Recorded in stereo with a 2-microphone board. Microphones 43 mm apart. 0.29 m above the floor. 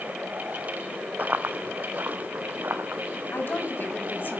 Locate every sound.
1.2 s running footsteps: 40° right (ahead or behind), 0.6 m; by 3.2 s 60° right (ahead or behind), 2.0 m
3.3 s a woman speaking: 50° left (ahead or behind), 2 m